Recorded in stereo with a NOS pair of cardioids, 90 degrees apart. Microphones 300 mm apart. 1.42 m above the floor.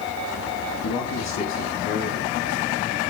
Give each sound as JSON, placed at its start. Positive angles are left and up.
{"t": 0.8, "sound": "a man speaking", "azimuth_deg": 65, "distance_m": 3.0}